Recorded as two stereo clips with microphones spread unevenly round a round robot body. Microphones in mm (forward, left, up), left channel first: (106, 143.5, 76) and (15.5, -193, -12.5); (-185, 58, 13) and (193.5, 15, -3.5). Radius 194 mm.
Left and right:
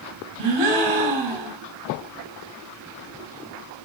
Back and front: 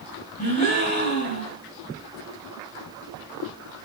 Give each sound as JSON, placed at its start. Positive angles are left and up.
{"t": 0.4, "sound": "a gasp", "azimuth_deg": -115, "distance_m": 2.5}